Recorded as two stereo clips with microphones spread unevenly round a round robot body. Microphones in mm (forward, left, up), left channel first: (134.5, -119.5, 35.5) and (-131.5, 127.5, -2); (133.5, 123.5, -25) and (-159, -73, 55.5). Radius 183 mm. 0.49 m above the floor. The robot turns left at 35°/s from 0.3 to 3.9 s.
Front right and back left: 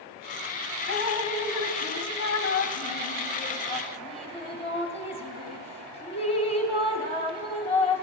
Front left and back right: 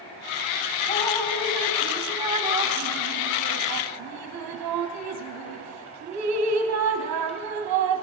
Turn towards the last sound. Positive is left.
turn(degrees=-115)